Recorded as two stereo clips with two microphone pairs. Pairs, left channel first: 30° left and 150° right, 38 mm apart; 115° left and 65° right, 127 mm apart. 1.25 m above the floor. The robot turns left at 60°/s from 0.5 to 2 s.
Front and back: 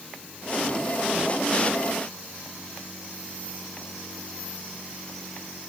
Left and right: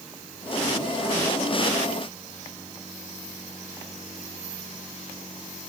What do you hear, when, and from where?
Only background noise.